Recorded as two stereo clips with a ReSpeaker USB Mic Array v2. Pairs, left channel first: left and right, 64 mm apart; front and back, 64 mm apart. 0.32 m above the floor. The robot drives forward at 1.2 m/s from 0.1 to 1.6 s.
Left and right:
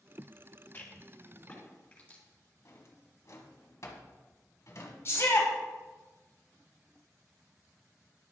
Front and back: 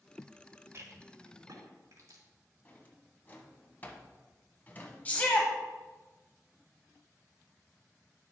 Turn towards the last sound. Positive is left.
turn(degrees=60)